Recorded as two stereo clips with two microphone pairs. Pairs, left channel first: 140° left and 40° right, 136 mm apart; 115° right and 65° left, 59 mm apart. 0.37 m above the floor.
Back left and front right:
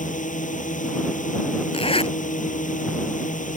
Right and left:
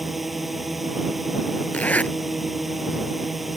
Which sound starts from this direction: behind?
A zipper, at 1.7 s.